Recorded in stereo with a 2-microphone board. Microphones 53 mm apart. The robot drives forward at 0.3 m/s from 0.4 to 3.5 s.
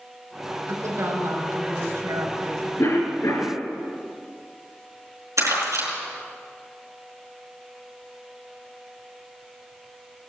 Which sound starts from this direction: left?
A cough, at 2.8 s.